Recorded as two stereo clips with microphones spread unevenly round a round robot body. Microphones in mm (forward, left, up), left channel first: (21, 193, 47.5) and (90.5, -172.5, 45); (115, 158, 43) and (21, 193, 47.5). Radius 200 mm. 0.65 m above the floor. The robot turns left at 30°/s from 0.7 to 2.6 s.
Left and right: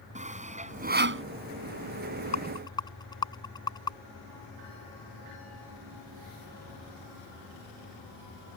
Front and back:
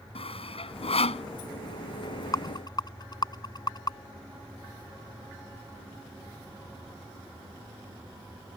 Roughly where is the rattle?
Ahead left.